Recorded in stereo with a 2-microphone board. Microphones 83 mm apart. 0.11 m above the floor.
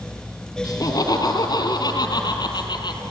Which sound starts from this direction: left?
Laughter, at 0.6 s.